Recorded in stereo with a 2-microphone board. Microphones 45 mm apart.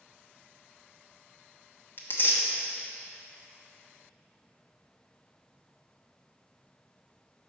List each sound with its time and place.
2.0 s tearing paper: 50° left (ahead or behind), 1.0 m